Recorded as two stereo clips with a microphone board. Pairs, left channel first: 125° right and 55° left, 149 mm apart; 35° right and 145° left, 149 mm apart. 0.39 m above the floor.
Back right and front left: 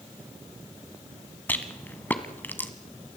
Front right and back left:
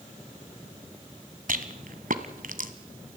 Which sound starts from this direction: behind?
A rattle, at 1.5 s.